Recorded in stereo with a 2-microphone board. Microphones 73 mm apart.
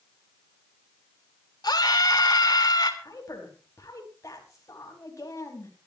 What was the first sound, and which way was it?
A scream, 65° left (ahead or behind).